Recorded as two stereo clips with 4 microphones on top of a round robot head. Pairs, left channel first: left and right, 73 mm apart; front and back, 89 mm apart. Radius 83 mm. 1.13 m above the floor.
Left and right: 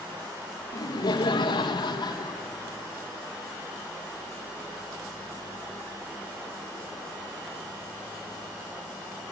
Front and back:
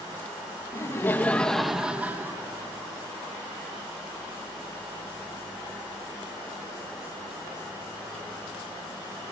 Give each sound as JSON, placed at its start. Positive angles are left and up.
{"t": 0.7, "sound": "laughter", "azimuth_deg": 55, "distance_m": 1.5}